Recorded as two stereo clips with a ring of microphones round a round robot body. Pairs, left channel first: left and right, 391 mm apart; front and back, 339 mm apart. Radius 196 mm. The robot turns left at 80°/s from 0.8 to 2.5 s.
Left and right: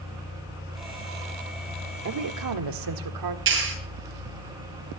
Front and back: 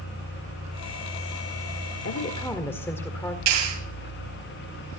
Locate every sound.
2.0 s a woman speaking: 45° right, 1.7 m; by 3.4 s 80° right, 1.7 m
3.5 s a clap: 150° right, 9.5 m